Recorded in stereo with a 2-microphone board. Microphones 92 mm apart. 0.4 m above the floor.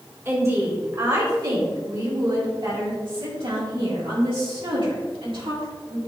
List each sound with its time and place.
0.2 s a woman speaking: 30° right (ahead or behind), 1.9 m; by 6.0 s 70° right (ahead or behind), 4 m